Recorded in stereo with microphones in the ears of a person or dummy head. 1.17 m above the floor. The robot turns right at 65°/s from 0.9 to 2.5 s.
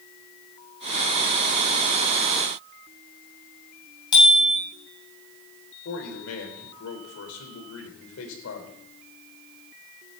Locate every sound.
4.1 s a bicycle bell: 25° left (ahead or behind), 6 m
5.8 s a man speaking: 80° left, 4 m